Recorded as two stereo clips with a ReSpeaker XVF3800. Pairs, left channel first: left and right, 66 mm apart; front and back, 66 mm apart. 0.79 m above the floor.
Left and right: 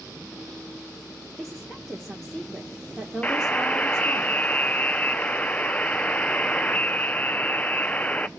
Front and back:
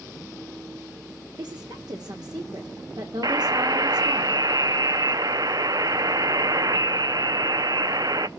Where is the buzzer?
160° left, 0.5 m.